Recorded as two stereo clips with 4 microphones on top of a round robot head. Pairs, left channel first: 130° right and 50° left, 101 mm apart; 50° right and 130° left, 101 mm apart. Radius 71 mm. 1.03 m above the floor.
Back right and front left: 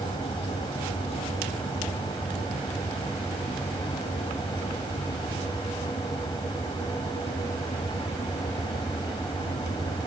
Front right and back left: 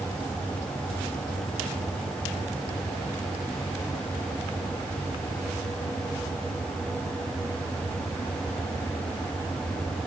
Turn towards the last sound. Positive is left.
No sound to turn to.